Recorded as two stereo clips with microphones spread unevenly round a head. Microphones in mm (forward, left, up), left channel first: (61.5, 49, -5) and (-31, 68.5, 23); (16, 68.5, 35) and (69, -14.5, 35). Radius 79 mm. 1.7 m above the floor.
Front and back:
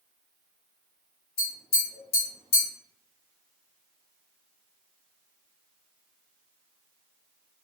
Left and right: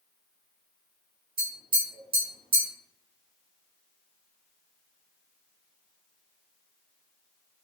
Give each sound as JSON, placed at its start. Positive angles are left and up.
{"t": 1.4, "sound": "tapping", "azimuth_deg": -40, "distance_m": 1.4}